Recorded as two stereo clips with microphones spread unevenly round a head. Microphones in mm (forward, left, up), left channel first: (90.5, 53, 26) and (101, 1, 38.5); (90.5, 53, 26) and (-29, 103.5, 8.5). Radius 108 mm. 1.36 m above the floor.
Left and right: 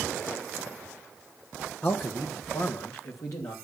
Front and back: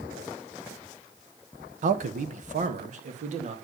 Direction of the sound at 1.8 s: 165° left.